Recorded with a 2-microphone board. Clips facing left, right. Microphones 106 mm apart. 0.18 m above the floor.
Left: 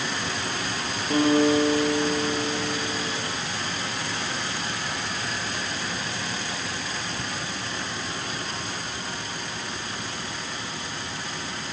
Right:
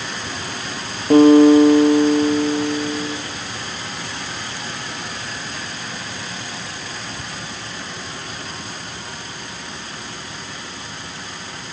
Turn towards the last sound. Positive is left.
turn(degrees=-45)  # may be behind; listen again after turning